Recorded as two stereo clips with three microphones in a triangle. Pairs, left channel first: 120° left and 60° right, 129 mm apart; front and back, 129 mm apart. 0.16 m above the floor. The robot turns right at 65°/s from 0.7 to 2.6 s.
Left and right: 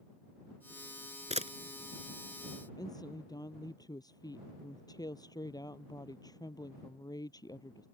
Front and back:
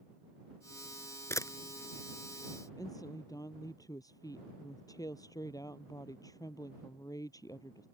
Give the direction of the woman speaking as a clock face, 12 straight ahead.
10 o'clock.